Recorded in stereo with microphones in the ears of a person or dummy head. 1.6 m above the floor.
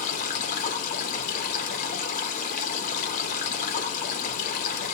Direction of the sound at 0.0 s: 50° left (ahead or behind).